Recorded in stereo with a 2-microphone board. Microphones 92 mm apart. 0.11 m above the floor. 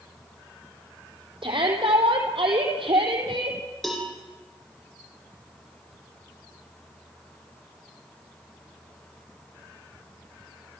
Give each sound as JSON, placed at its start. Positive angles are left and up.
{"t": 1.4, "sound": "a shout", "side_deg": -70, "distance_m": 4.5}
{"t": 3.8, "sound": "a cowbell", "side_deg": 0, "distance_m": 5.0}